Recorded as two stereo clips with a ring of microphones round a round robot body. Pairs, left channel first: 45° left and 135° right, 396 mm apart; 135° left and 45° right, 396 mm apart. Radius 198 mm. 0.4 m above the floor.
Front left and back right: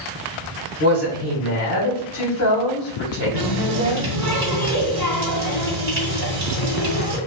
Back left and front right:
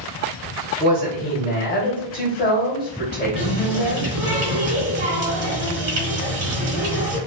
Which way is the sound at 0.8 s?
75° left.